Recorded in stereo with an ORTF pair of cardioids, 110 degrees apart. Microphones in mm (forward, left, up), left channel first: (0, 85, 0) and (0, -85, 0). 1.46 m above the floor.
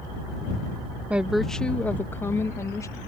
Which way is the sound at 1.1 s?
10° right.